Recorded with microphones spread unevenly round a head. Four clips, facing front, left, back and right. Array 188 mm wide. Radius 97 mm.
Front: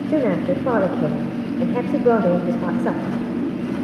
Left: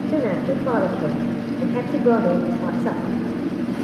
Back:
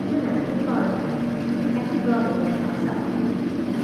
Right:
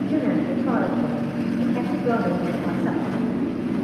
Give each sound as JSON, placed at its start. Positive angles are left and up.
{"t": 0.1, "sound": "a woman speaking", "azimuth_deg": 20, "distance_m": 0.6}